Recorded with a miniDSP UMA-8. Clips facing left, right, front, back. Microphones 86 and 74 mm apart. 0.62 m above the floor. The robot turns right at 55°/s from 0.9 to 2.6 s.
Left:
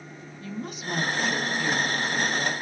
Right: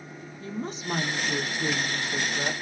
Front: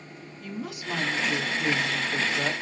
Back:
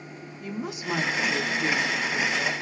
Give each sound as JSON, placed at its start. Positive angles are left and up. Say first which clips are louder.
{"t": 0.4, "sound": "a woman speaking", "louder": "right 1 dB, back 3 dB", "azimuth_deg": -120, "distance_m": 0.6}